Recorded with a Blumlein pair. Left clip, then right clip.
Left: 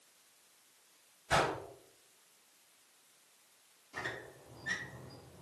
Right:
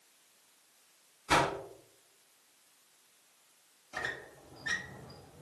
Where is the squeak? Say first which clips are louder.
Right 3 dB; 65° right, 1.4 m.